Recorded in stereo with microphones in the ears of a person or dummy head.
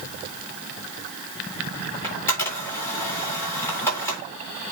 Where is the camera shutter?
15° left (ahead or behind), 3.5 m.